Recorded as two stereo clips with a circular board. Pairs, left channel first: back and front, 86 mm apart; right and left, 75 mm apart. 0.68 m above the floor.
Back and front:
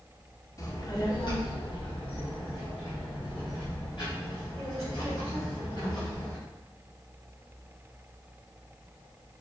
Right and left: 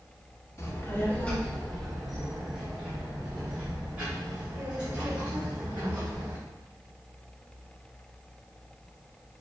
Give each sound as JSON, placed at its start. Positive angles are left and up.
{"t": 0.6, "sound": "a child speaking", "azimuth_deg": -135, "distance_m": 0.9}